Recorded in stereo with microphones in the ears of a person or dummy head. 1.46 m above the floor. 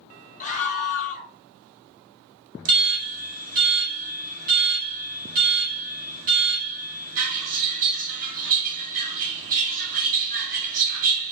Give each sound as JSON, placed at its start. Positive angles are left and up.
{"t": 0.4, "sound": "a scream", "side_deg": 40, "distance_m": 1.1}
{"t": 2.6, "sound": "an alarm", "side_deg": -45, "distance_m": 1.1}